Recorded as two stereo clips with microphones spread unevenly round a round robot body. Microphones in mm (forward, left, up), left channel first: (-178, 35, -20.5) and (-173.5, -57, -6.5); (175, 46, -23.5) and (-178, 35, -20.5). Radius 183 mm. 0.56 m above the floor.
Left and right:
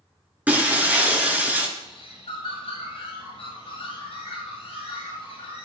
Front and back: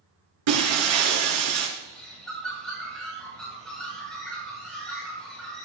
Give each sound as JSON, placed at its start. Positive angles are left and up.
{"t": 0.5, "sound": "breaking glass", "azimuth_deg": -160, "distance_m": 4.0}
{"t": 1.8, "sound": "a bird", "azimuth_deg": 90, "distance_m": 7.5}